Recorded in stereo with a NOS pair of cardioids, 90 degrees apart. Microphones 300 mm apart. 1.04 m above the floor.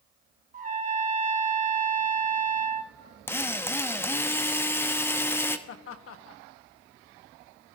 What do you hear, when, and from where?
0.5 s a trumpet: 25° right, 2 m
3.3 s a drill: 10° left, 1.0 m
5.7 s laughter: 50° left, 1.4 m